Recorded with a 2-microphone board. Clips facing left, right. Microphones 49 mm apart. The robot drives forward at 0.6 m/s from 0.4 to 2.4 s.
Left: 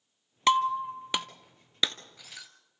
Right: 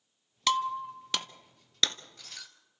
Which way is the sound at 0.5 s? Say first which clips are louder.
Left 5 dB; 25° left (ahead or behind).